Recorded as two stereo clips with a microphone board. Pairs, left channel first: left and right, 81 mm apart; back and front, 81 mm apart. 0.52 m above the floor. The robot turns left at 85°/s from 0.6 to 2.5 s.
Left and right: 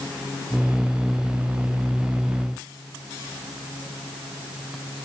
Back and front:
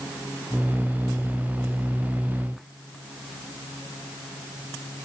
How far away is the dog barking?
I don't hear a dog barking.